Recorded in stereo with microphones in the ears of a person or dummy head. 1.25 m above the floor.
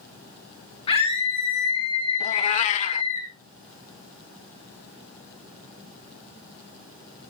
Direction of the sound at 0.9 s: 30° left (ahead or behind).